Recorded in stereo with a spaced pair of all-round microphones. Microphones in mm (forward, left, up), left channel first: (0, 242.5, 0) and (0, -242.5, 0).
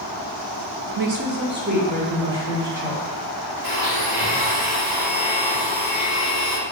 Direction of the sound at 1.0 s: 50° right (ahead or behind).